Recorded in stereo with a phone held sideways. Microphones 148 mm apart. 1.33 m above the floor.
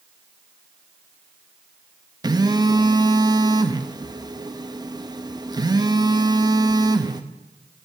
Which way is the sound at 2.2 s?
30° right (ahead or behind).